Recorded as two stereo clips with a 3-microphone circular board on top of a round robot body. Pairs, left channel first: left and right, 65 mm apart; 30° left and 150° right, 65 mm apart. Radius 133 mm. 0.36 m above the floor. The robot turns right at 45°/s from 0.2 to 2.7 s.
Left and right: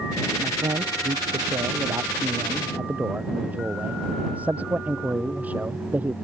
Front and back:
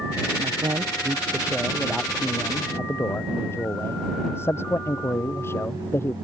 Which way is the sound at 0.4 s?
125° right.